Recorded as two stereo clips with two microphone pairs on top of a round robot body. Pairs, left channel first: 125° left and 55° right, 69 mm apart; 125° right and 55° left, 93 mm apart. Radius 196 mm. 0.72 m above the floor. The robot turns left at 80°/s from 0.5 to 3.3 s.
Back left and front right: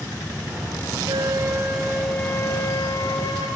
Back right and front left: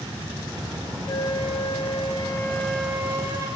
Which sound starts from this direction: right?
A flute, at 1.1 s.